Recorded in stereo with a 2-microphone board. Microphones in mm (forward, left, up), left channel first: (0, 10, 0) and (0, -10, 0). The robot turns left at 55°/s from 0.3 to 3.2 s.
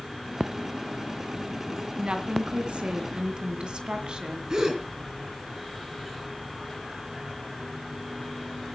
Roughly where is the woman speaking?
Ahead right.